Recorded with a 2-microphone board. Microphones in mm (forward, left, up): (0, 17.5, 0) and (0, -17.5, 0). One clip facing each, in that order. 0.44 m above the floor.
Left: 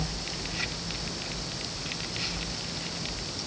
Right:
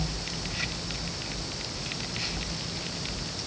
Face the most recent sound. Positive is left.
No sound to turn to.